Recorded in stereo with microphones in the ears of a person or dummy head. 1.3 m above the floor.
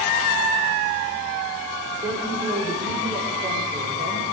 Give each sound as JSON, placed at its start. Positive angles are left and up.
{"t": 2.0, "sound": "a woman speaking", "side_deg": -20, "distance_m": 5.0}